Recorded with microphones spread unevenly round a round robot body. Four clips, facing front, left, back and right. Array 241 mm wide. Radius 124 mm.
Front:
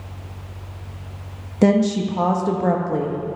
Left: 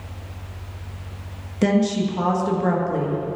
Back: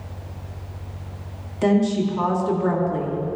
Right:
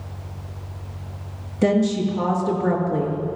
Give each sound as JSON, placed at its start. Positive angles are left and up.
{"t": 1.6, "sound": "a woman speaking", "azimuth_deg": 0, "distance_m": 1.4}